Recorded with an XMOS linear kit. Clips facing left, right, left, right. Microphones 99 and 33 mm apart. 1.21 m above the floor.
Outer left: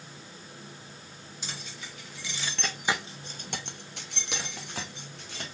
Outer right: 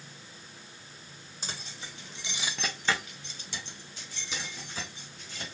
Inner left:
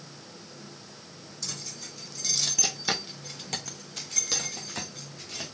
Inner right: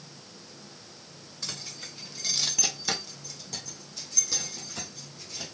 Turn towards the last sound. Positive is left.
turn(degrees=65)  # may be behind; listen again after turning